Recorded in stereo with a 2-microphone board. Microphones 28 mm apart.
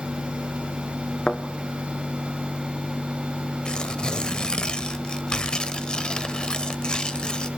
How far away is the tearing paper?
About 0.9 m.